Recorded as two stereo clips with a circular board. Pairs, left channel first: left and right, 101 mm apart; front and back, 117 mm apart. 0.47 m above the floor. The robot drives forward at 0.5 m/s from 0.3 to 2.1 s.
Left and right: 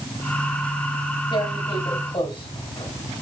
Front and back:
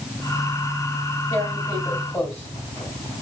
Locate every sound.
1.3 s tearing paper: 60° left, 3.5 m; by 3.2 s 70° left, 3.5 m